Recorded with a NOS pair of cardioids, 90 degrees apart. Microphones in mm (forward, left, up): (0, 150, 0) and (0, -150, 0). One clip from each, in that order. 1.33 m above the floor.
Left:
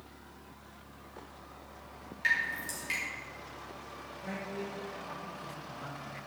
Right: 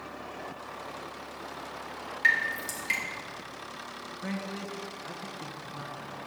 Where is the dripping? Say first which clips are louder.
Right 5 dB; 35° right, 2.5 m.